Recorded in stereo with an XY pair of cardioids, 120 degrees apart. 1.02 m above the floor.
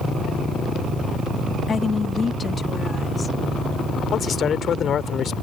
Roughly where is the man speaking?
Ahead left.